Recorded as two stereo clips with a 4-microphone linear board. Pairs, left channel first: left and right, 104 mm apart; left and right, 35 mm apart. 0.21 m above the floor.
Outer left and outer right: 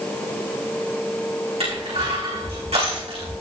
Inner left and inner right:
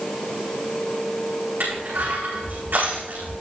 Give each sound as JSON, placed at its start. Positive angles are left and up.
{"t": 1.6, "sound": "crushing", "side_deg": -85, "distance_m": 7.5}